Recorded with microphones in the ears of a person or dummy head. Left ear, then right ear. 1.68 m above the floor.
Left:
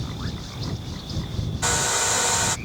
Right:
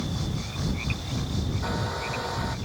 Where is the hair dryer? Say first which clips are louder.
Left 10 dB; 70° left (ahead or behind).